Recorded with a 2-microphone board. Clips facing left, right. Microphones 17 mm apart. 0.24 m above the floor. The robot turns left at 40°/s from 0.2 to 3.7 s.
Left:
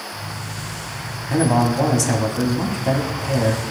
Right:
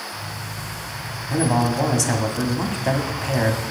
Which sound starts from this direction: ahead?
A man speaking, at 1.3 s.